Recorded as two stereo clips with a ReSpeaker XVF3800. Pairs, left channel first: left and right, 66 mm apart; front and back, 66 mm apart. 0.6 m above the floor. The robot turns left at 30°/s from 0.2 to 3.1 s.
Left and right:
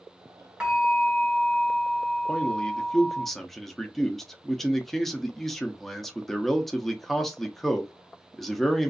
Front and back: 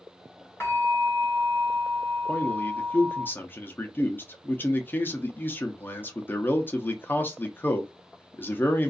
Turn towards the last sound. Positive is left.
turn(degrees=5)